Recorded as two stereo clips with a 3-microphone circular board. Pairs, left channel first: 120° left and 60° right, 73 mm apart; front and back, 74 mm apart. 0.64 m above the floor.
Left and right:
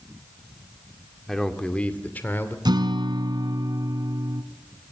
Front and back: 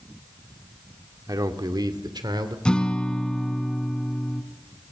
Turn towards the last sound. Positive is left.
turn(degrees=-80)